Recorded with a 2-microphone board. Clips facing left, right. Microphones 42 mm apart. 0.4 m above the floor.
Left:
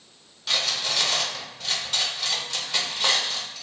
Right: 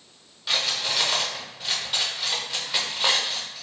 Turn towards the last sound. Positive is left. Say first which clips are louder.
# even
turn(degrees=-10)  # may be behind; listen again after turning